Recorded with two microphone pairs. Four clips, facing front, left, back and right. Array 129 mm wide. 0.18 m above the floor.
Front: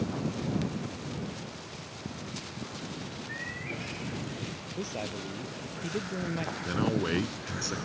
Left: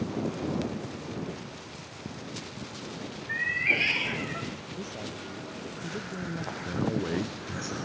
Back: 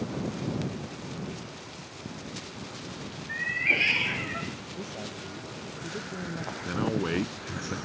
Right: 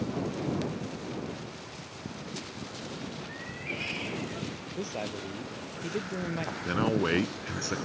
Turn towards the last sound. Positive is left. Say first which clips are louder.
# right 3 dB, back 1 dB
turn(degrees=-85)